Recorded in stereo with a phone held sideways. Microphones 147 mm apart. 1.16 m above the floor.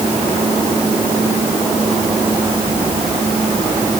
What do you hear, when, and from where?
Only background noise.